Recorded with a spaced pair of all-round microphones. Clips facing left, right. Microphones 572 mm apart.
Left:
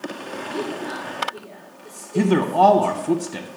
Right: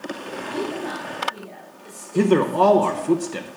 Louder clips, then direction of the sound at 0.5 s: Right 1 dB; 20° right (ahead or behind).